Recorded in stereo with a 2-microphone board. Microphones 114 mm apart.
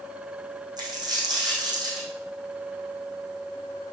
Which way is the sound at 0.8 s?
35° right (ahead or behind).